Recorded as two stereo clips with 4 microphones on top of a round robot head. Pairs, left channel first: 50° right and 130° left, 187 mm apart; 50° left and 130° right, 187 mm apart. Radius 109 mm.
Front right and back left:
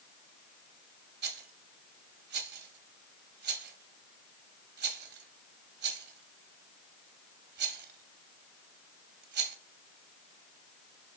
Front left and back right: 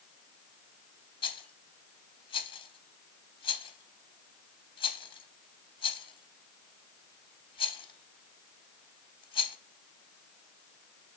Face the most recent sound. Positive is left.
turn(degrees=110)